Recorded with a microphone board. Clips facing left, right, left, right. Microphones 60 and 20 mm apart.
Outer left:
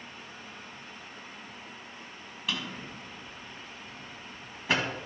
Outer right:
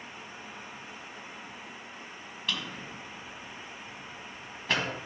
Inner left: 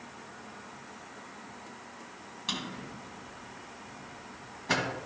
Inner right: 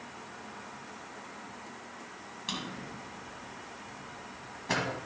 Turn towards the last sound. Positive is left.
turn(degrees=5)  # may be behind; listen again after turning